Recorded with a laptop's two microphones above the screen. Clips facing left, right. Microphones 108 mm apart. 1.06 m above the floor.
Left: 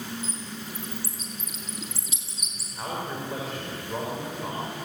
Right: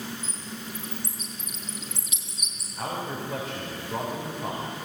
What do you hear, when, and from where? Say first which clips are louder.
0.2 s a bird: left 1 dB; 35° left (ahead or behind), 6 m
2.8 s a man speaking: right 1 dB; centre (ahead or behind), 4 m